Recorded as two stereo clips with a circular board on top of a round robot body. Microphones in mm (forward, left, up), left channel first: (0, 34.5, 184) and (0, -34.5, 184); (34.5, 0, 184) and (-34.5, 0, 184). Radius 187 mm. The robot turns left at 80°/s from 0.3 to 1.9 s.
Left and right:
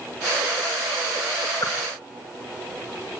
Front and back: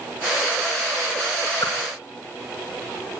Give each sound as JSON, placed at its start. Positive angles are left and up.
{"t": 1.6, "sound": "a whoosh", "azimuth_deg": 45, "distance_m": 3.5}